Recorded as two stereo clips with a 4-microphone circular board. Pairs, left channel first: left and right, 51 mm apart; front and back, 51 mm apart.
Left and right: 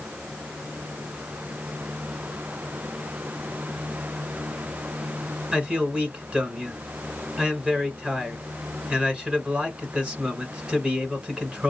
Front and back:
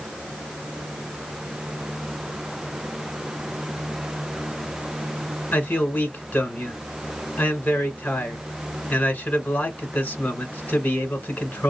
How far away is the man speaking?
About 1.4 m.